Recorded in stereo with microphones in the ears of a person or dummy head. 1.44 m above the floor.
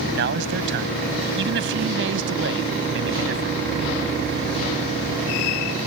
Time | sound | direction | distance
0.1 | a man speaking | 70° right (ahead or behind) | ?